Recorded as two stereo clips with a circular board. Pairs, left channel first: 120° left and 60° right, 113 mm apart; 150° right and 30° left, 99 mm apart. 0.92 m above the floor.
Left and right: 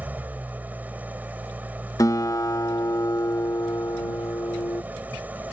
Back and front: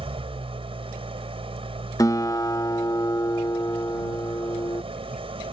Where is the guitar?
170° left.